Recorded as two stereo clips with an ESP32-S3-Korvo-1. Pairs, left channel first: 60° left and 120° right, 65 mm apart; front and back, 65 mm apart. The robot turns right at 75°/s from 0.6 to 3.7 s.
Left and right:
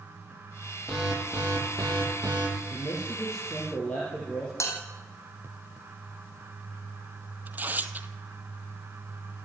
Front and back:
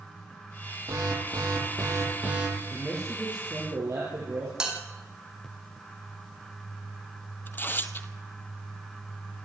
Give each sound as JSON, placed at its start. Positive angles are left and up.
{"t": 0.9, "sound": "an alarm", "azimuth_deg": 145, "distance_m": 10.0}
{"t": 2.7, "sound": "a man speaking", "azimuth_deg": 60, "distance_m": 6.5}
{"t": 4.6, "sound": "a bell", "azimuth_deg": 100, "distance_m": 4.5}
{"t": 7.5, "sound": "tearing paper", "azimuth_deg": -60, "distance_m": 1.2}